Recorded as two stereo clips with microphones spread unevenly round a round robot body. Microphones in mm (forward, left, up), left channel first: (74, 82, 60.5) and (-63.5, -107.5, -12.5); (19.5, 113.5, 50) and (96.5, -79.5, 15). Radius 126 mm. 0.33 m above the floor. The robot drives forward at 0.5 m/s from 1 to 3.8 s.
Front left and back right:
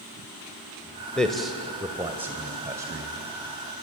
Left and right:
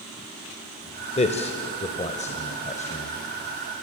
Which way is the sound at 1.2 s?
165° left.